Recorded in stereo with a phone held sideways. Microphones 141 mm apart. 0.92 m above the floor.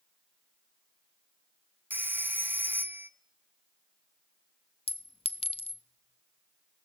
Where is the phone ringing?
15° right (ahead or behind), 0.7 m.